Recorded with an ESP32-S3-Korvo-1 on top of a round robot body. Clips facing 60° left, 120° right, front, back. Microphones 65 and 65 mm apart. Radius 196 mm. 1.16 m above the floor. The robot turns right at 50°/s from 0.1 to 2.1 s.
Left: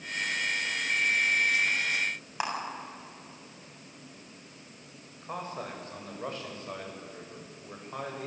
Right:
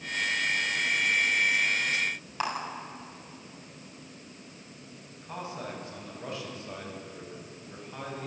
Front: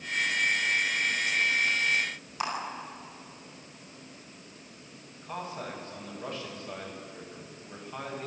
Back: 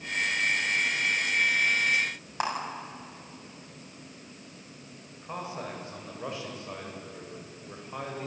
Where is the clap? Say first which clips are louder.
Right 1 dB, back 3 dB; 135° left, 7.5 m.